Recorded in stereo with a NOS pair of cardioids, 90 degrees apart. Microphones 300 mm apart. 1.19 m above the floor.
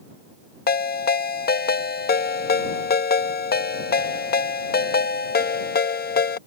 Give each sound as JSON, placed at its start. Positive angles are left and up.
{"t": 0.7, "sound": "a ringtone", "azimuth_deg": 30}